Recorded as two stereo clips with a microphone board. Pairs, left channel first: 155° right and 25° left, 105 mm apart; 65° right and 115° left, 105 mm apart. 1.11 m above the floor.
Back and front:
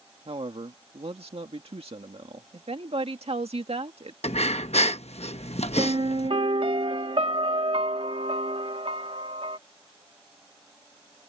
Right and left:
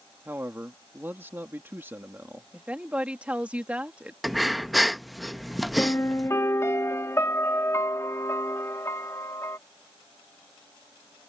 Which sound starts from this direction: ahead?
A piano, at 5.8 s.